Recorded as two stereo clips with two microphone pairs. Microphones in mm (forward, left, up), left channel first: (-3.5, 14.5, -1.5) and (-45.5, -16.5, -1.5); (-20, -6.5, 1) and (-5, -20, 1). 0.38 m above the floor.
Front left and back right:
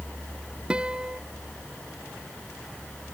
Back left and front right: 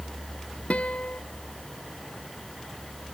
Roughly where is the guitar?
Behind left.